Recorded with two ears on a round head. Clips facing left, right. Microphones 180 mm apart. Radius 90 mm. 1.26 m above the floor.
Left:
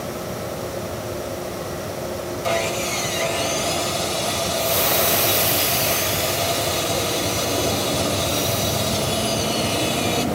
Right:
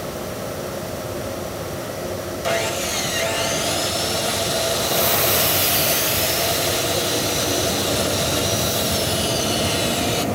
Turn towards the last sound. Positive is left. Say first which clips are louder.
# even
turn(degrees=-15)  # may be behind; listen again after turning